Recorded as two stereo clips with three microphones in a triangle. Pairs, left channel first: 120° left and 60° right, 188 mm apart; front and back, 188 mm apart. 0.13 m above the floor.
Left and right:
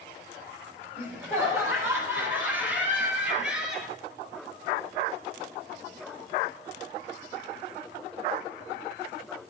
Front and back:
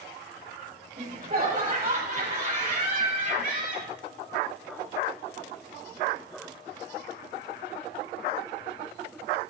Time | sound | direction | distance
1.0 | laughter | 135° right | 5.5 m